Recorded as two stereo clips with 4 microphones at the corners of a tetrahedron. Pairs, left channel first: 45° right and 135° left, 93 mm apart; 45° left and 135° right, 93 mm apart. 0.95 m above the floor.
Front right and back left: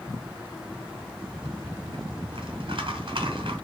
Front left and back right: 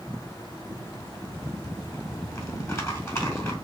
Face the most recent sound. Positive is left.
turn(degrees=105)